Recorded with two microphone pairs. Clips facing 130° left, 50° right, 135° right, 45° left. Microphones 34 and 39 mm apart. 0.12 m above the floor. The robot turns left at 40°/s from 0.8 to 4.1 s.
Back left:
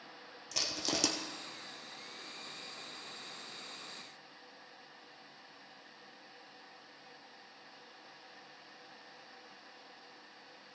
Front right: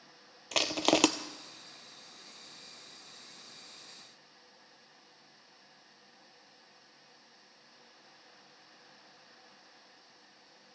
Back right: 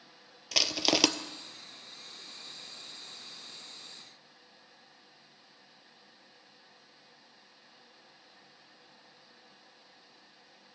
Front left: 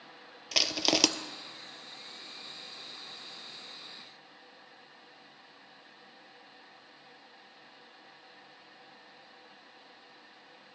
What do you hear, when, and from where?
0.5 s crushing: 40° right, 0.5 m; by 1.1 s 50° right, 0.5 m